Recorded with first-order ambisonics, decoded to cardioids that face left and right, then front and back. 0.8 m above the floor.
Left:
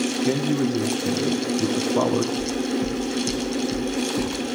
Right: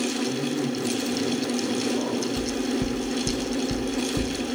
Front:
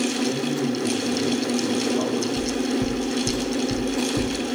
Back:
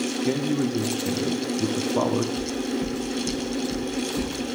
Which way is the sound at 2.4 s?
55° right.